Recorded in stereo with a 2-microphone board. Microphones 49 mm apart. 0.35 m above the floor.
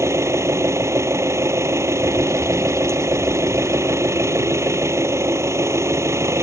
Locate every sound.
0.0 s an engine running: 80° right
2.0 s a bird: 20° left (ahead or behind)